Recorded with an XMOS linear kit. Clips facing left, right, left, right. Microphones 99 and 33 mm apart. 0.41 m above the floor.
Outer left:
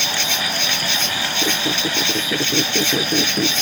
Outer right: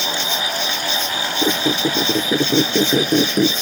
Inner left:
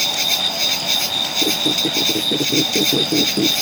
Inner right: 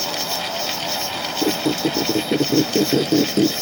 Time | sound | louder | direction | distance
0.0 | an insect | outer right 1 dB, inner left 5 dB | 75° left (ahead or behind) | ?
1.4 | a squeak | outer right 6 dB, inner right 1 dB | 20° right (ahead or behind) | ?